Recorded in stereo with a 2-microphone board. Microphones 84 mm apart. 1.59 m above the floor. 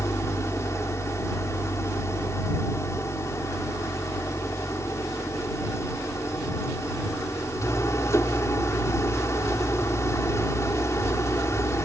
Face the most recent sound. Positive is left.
turn(degrees=35)  # may be behind; listen again after turning